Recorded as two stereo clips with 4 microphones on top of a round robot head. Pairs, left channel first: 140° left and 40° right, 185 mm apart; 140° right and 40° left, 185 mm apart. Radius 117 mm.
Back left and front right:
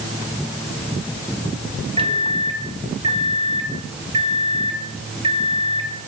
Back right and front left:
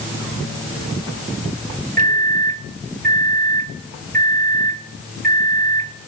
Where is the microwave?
15° left, 1.7 m.